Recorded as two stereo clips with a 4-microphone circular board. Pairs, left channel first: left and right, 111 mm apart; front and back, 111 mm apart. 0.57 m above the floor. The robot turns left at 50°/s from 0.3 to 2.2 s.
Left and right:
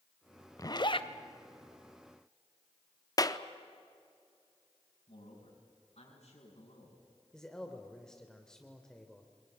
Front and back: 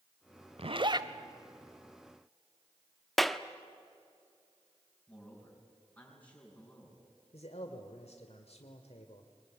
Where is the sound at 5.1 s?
75° left, 6 m.